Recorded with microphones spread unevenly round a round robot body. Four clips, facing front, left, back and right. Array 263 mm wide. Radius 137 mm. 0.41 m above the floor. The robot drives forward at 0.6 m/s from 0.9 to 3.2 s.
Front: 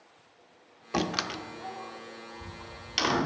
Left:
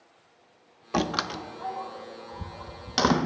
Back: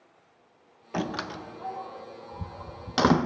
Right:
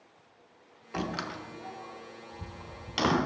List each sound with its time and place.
0.9 s a door slam: 65° left, 0.9 m; by 3.2 s 155° left, 1.4 m